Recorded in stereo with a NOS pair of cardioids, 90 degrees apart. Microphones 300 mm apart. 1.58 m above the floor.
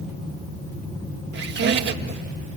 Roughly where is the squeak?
Ahead right.